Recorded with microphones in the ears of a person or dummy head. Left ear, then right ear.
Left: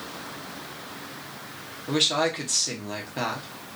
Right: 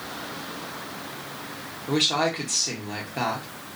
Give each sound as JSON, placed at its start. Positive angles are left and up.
{"t": 1.9, "sound": "a woman speaking", "side_deg": 5, "distance_m": 0.8}